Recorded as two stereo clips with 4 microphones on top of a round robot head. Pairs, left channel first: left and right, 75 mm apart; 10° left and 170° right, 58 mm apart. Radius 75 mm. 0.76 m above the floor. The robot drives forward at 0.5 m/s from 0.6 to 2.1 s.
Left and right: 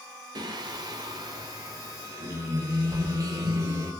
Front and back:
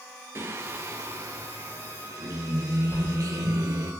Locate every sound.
0.3 s singing: 125° right, 2.5 m; by 3.9 s 135° right, 3 m
2.9 s keys jangling: 55° right, 2.5 m